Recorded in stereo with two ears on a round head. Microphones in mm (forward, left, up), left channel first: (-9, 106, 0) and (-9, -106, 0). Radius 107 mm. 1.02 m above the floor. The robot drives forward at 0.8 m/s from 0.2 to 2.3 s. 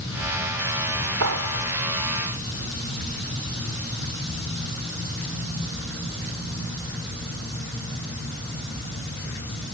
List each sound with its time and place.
1.2 s a clap: 80° right; by 1.6 s 85° right